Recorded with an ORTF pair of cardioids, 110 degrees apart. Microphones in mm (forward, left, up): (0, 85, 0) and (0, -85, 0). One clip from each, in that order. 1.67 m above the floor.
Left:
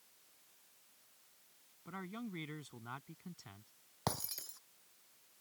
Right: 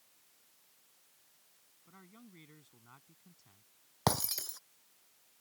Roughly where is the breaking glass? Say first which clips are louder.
Right 8 dB; ahead right.